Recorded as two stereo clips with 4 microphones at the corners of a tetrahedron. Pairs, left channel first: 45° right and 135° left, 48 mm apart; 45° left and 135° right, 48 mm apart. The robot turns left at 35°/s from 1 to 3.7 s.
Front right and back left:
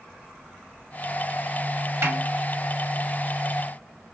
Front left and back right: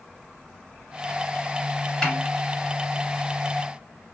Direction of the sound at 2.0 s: 115° left.